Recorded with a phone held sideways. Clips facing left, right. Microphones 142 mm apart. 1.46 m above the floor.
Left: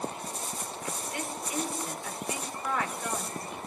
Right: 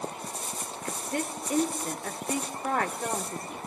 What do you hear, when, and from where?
0.8 s a woman speaking: 45° right (ahead or behind), 4 m